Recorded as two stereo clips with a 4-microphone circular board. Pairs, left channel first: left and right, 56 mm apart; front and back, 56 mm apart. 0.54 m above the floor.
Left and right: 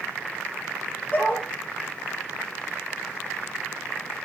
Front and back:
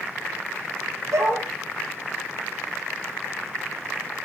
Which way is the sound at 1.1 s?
155° left.